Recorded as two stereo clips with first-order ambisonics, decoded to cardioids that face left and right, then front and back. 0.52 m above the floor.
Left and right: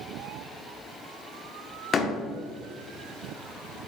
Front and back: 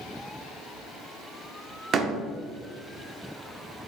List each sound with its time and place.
1.9 s a door slam: 145° left, 0.9 m